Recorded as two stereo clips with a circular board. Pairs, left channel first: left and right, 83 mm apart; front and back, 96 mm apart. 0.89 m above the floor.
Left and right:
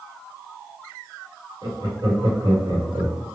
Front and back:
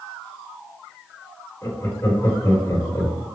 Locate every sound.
1.6 s laughter: 65° right, 2.0 m